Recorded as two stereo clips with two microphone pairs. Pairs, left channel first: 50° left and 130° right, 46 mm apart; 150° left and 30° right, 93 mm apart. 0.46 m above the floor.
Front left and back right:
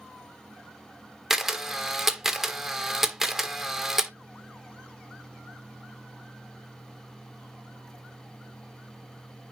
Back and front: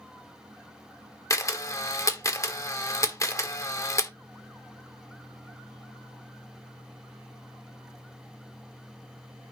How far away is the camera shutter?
About 1.4 m.